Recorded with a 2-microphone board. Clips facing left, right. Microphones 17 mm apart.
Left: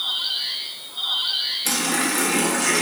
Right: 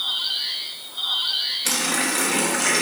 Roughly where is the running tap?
Right.